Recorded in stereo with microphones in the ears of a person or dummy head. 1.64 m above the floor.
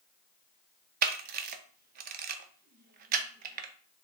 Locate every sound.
1.0 s a camera shutter: 50° right (ahead or behind), 0.8 m